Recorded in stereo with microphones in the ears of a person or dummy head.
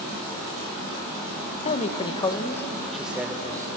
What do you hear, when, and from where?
1.6 s a man speaking: 40° left (ahead or behind), 1.3 m; by 3.7 s 20° right (ahead or behind), 1.3 m